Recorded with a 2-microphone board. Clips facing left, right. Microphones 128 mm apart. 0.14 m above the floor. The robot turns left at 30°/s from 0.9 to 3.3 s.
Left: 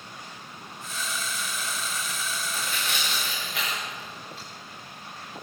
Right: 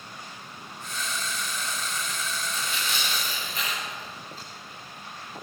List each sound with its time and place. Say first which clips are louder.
2.5 s tearing paper: even; 45° left (ahead or behind), 9.5 m; by 4.5 s 70° left (ahead or behind), 9.5 m